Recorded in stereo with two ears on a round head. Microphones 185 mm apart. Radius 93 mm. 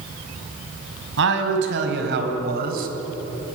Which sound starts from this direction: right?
A man speaking, at 1.2 s.